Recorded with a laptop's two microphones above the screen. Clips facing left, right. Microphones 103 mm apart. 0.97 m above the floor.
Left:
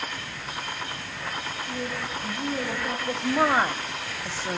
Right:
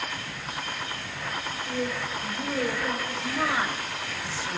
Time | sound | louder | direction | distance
1.7 | a woman speaking | right 4 dB | 25° right (ahead or behind) | 4 m
3.1 | a woman speaking | left 6 dB | 45° left (ahead or behind) | 1.7 m